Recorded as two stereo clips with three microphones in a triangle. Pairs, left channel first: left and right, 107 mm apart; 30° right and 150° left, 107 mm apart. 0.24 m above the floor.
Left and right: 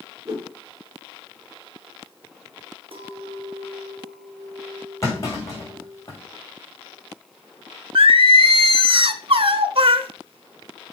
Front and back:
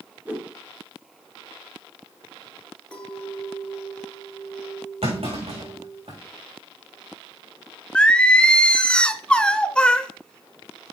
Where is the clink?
110° right, 2.5 m.